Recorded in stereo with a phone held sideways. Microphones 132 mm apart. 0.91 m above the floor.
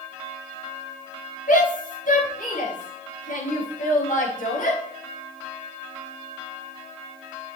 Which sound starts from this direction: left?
A shout, at 1.5 s.